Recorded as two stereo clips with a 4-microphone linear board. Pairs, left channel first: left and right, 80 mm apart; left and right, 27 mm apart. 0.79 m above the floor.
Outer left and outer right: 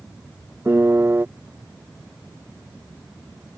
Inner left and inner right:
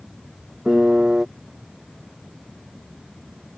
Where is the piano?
30° right (ahead or behind).